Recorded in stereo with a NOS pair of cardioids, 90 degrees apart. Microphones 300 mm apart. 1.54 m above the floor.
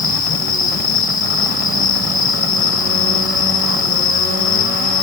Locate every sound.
0.0 s an insect: 30° left